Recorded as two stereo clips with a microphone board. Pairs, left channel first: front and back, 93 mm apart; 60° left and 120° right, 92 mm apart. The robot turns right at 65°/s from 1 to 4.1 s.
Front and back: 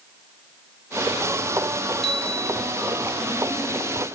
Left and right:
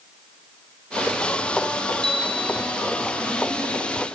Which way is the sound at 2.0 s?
90° right.